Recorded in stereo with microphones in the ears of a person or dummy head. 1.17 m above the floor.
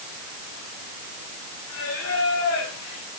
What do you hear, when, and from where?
1.7 s singing: 70° left (ahead or behind), 5.5 m